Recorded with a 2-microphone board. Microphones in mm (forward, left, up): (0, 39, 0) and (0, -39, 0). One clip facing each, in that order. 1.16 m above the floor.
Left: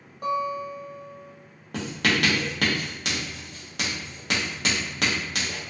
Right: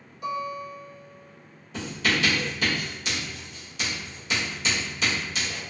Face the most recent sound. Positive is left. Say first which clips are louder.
# left 2 dB
turn(degrees=60)  # may be behind; listen again after turning